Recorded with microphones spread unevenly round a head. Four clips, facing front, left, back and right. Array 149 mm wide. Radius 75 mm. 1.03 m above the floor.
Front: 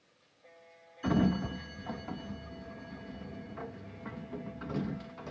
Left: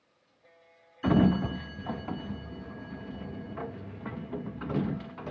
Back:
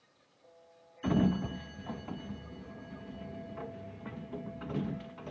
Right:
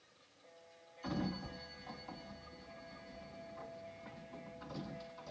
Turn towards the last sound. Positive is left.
turn(degrees=80)